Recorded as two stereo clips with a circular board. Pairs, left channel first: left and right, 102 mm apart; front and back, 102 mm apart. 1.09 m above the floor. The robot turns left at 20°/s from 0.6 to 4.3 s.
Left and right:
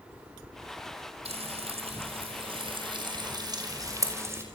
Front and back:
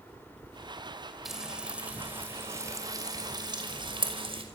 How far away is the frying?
About 5.5 m.